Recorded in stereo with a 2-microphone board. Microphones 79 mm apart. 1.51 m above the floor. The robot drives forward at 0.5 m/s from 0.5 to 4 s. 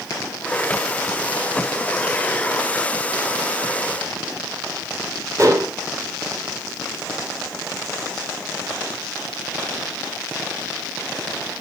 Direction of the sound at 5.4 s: 45° right (ahead or behind).